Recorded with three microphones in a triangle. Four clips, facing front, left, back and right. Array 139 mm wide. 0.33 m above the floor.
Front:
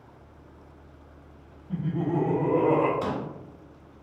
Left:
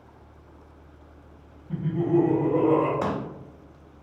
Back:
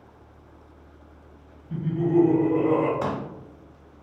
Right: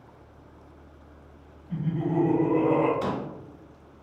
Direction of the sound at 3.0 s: 120° left.